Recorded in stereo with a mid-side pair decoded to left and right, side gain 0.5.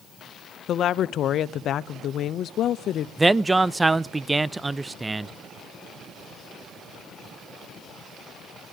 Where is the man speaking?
15° right, 0.6 m.